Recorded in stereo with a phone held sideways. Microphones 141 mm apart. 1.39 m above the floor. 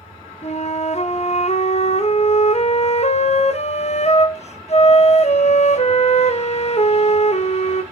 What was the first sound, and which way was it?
A flute, 50° left (ahead or behind).